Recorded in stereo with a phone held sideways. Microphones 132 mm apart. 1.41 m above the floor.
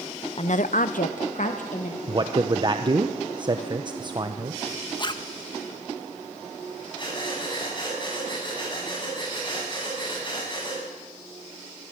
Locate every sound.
0.4 s a woman speaking: 45° left (ahead or behind), 0.6 m; by 2.0 s 60° left (ahead or behind), 1.8 m
2.1 s a man speaking: 35° right (ahead or behind), 0.8 m
5.0 s a zipper: 35° left (ahead or behind), 0.9 m
7.0 s breathing: 35° left (ahead or behind), 8 m